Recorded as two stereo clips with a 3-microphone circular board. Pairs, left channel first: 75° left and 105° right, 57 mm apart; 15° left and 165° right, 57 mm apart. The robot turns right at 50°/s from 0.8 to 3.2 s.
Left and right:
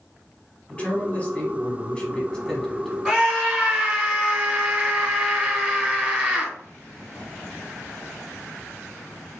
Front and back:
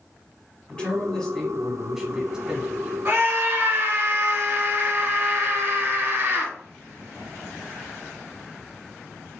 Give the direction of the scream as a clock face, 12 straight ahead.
6 o'clock.